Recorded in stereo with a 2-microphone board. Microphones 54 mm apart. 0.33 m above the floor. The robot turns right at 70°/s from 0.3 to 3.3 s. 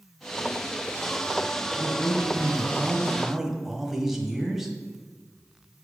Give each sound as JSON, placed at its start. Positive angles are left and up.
{"t": 1.7, "sound": "a man speaking", "azimuth_deg": -115, "distance_m": 1.4}